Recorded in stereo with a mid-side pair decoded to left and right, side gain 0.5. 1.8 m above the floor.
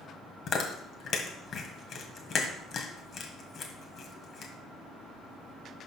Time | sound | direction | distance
0.5 | chewing | 55° left | 1.8 m